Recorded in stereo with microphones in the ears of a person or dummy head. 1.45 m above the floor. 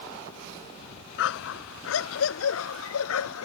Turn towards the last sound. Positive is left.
turn(degrees=85)